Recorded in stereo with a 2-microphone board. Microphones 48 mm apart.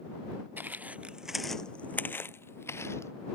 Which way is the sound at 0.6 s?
40° right (ahead or behind).